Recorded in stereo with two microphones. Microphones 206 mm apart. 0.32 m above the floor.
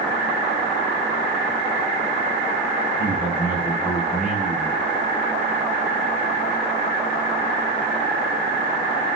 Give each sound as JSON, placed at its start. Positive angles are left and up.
{"t": 3.0, "sound": "a man speaking", "side_deg": 40, "distance_m": 6.5}